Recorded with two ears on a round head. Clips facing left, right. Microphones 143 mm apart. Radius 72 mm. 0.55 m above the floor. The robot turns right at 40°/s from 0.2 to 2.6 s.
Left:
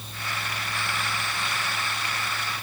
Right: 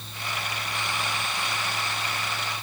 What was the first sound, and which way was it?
Only background noise.